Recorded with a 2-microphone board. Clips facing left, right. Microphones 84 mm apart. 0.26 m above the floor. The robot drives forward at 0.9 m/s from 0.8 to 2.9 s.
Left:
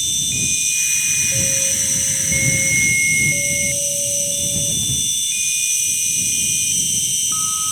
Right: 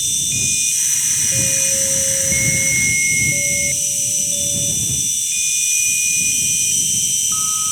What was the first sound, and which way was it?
An insect, 80° right.